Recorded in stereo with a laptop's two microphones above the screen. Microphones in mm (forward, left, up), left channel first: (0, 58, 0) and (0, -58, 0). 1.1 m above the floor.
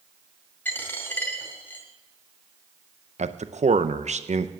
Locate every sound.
0.7 s a dropped coin: 15° left (ahead or behind), 2.0 m
3.2 s a man speaking: 70° right (ahead or behind), 0.6 m